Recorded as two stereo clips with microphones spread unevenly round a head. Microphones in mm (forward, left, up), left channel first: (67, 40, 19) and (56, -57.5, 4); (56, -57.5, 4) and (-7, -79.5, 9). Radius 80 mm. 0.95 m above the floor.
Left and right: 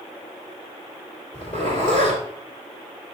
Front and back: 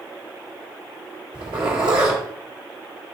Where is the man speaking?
No man speaking in this recording.